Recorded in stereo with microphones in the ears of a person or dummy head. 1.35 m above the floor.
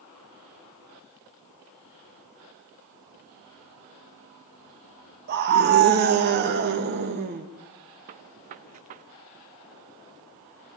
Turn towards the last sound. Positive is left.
turn(degrees=-35)  # may be behind; listen again after turning